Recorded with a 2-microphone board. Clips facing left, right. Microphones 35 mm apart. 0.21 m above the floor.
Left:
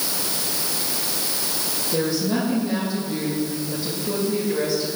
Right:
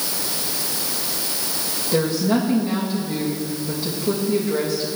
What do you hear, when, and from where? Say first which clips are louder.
1.9 s a woman speaking: right 3 dB; 30° right (ahead or behind), 7.5 m